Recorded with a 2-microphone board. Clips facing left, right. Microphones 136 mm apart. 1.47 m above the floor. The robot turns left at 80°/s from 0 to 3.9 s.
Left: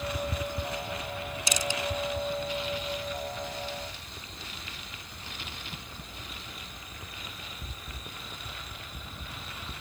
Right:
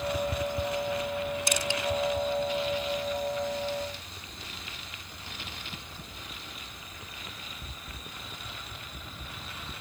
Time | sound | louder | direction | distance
1.5 | crushing | right 2 dB | 60° right (ahead or behind) | ?